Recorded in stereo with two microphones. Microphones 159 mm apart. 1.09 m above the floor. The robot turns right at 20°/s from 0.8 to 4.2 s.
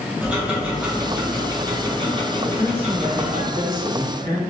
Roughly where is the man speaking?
Behind right.